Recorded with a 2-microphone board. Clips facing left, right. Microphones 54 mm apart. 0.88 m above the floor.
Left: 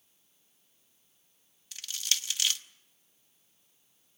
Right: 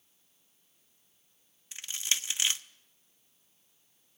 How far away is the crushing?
About 0.8 m.